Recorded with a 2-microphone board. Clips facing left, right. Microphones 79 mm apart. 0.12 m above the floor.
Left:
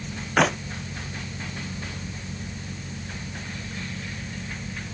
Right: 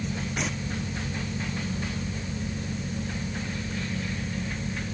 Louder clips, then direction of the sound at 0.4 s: Left 14 dB; 80° left.